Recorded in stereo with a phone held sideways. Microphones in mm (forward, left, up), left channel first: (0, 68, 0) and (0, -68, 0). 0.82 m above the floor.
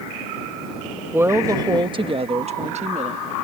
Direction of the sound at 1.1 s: 15° right (ahead or behind).